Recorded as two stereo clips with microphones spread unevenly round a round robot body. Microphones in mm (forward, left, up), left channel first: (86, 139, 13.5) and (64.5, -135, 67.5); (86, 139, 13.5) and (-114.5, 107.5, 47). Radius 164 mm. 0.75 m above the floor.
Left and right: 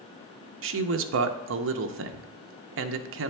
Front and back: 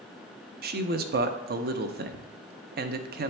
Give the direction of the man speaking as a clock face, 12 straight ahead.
4 o'clock.